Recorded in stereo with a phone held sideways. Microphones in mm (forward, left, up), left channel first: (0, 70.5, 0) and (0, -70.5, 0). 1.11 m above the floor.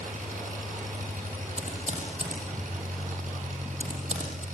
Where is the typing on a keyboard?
60° right (ahead or behind), 6 m.